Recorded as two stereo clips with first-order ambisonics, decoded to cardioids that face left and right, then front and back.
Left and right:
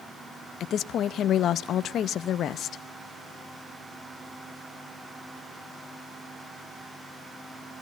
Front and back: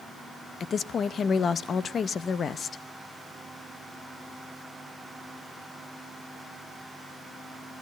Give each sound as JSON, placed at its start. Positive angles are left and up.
{"t": 0.6, "sound": "a woman speaking", "azimuth_deg": 55, "distance_m": 0.7}